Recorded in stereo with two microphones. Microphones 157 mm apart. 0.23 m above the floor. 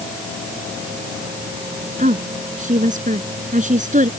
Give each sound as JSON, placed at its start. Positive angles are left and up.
{"t": 2.0, "sound": "a woman speaking", "side_deg": -55}